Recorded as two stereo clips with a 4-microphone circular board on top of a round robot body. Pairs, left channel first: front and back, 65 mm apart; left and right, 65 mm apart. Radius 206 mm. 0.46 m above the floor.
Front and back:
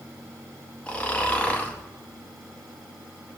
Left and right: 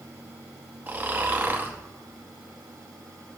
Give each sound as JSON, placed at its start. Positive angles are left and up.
{"t": 0.9, "sound": "snoring", "azimuth_deg": -55, "distance_m": 1.3}